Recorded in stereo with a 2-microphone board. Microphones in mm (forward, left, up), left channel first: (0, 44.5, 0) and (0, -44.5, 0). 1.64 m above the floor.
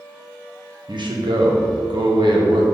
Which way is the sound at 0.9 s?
60° right (ahead or behind).